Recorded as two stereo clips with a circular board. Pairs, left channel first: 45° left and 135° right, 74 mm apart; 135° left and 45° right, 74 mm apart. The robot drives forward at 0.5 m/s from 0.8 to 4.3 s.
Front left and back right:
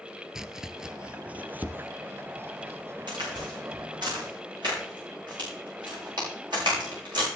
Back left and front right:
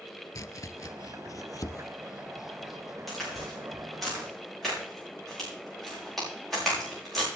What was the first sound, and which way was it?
Chopping, 145° left.